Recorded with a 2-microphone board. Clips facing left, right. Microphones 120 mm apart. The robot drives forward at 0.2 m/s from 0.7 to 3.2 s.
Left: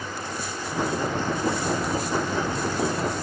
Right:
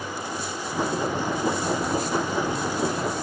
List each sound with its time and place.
Only background noise.